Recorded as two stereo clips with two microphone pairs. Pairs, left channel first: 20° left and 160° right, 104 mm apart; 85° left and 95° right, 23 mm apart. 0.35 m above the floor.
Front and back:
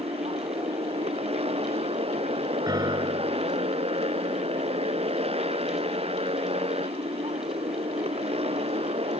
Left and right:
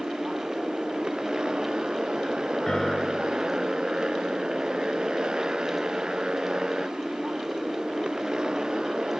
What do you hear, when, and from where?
0.0 s a motorcycle: 145° right
2.7 s a piano: 150° left